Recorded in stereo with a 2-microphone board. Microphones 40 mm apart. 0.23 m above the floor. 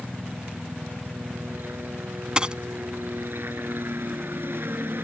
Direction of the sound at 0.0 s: 65° right (ahead or behind).